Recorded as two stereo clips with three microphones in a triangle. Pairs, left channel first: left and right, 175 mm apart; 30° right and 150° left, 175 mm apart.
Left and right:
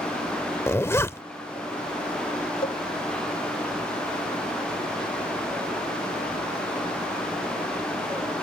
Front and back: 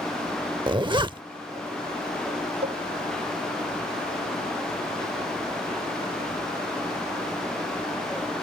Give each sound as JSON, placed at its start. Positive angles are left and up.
{"t": 0.7, "sound": "a zipper", "azimuth_deg": 145}
{"t": 2.6, "sound": "a cowbell", "azimuth_deg": 125}